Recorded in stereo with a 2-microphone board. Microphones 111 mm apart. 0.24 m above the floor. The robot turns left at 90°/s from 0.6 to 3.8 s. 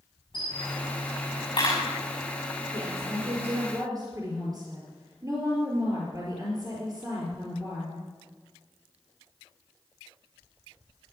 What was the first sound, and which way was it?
A camera shutter, 40° left (ahead or behind).